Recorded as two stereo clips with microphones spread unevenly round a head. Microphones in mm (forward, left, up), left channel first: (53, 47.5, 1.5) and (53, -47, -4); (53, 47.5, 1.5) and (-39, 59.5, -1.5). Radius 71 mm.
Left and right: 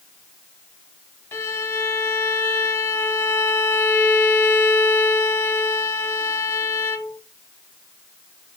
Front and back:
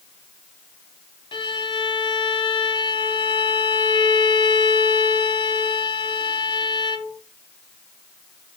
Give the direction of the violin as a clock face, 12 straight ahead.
11 o'clock.